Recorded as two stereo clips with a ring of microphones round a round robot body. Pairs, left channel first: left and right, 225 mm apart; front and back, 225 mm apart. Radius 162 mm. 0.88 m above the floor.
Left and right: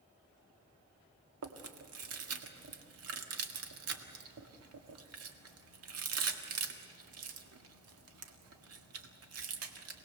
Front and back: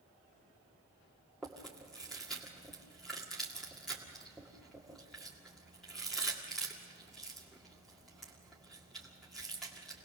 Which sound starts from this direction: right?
Chewing, at 1.4 s.